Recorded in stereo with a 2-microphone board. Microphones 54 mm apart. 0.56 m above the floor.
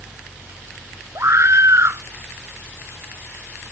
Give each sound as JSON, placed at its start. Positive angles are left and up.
{"t": 1.1, "sound": "a scream", "side_deg": -55}